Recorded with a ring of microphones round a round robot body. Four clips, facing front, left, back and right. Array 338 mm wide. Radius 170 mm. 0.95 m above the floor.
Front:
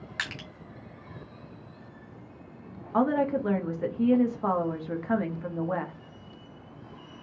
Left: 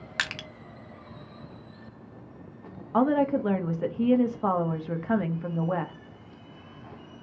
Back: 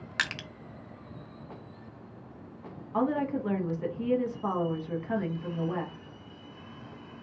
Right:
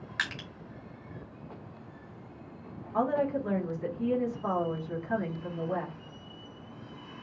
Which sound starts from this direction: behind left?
Crushing, at 0.2 s.